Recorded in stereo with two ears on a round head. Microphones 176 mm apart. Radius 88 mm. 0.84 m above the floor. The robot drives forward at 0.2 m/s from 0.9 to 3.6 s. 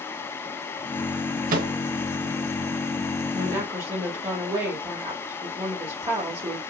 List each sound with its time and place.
1.5 s a microwave: 45° right (ahead or behind), 0.5 m; by 1.7 s 40° right (ahead or behind), 0.5 m
3.3 s a woman speaking: 20° right (ahead or behind), 1.5 m